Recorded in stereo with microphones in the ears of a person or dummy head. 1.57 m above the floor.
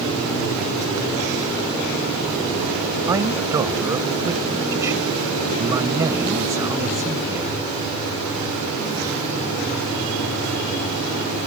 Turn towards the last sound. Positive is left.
turn(degrees=-15)  # may be behind; listen again after turning